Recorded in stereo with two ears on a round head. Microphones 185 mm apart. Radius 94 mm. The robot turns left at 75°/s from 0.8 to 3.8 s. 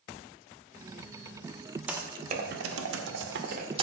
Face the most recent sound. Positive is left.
turn(degrees=-30)  # may be behind; listen again after turning